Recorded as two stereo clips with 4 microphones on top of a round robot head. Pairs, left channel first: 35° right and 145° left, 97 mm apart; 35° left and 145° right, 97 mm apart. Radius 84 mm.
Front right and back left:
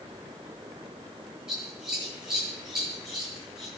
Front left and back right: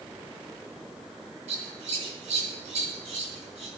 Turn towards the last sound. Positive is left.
turn(degrees=-130)